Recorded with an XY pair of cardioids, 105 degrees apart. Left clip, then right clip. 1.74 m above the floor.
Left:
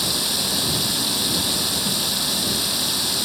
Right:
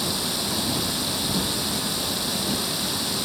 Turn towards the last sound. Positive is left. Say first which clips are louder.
# left 4 dB
turn(degrees=35)